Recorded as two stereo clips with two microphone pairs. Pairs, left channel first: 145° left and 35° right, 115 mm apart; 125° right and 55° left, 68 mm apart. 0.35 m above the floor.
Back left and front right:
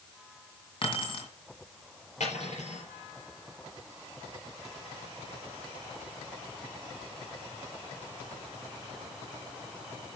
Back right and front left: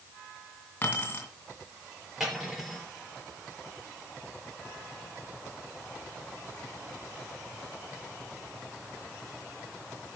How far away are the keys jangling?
About 2.5 m.